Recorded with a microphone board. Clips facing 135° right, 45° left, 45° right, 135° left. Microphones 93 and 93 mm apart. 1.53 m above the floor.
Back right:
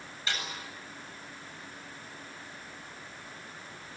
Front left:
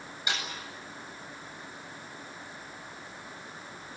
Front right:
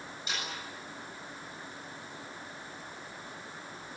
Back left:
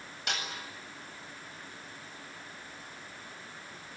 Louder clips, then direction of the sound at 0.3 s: Front left 1 dB, back left 2 dB; 120° left.